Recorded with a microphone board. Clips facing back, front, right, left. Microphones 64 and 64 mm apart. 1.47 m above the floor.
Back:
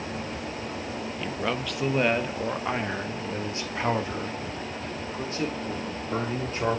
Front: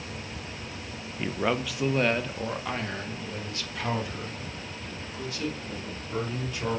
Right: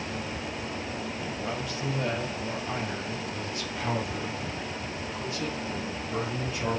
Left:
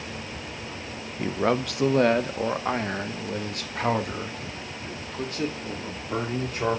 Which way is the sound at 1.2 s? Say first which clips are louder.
Front 3 dB, left 14 dB; 70° left.